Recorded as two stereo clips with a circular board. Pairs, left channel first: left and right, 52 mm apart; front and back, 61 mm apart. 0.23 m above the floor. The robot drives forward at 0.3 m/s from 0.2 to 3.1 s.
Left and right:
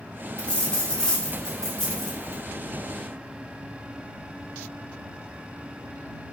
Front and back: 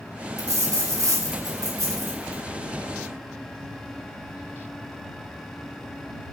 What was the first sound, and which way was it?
A dropped coin, 160° left.